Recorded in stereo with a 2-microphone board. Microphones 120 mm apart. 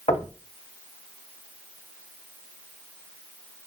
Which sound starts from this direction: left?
Knocking, at 0.1 s.